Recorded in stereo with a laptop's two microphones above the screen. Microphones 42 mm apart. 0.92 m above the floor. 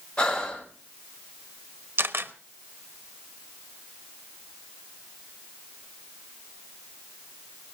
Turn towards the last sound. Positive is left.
turn(degrees=-60)  # may be behind; listen again after turning